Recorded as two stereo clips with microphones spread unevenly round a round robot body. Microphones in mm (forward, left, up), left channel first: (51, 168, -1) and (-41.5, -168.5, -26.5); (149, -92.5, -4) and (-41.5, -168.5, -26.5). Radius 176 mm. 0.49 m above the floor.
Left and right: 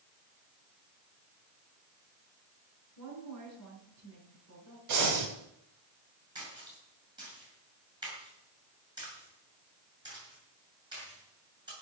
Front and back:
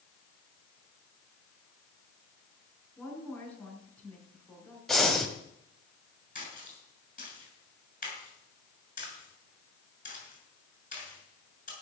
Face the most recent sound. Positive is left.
turn(degrees=-25)